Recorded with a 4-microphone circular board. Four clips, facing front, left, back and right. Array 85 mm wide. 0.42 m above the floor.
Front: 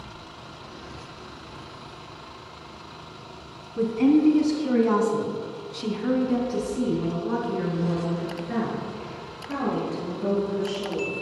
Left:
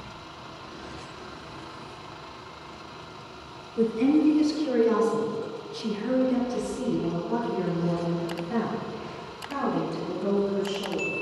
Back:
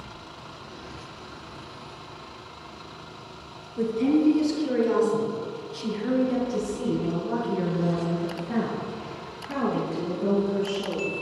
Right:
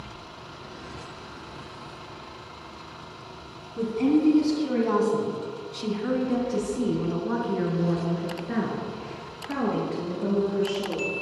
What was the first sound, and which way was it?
A woman speaking, 10° right.